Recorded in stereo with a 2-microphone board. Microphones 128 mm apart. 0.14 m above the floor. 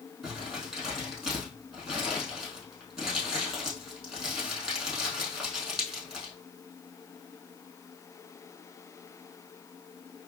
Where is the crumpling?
5° right (ahead or behind), 3 m.